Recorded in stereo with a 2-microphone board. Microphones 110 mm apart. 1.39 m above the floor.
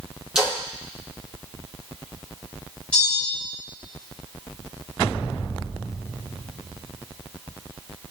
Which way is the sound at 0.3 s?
5° right (ahead or behind).